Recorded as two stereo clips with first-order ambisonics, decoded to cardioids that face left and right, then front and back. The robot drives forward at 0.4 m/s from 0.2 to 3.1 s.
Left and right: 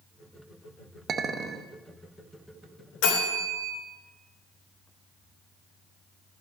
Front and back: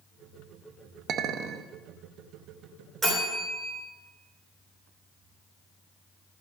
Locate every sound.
1.1 s a clink: 145° right, 0.8 m; by 1.7 s 155° right, 0.9 m
3.0 s a bell: 105° left, 3.5 m